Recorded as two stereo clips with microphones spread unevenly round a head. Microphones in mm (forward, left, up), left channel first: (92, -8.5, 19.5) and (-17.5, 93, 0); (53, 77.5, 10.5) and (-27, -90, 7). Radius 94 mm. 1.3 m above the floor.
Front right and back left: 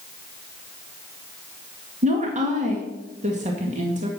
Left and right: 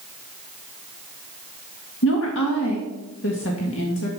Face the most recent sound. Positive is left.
turn(degrees=95)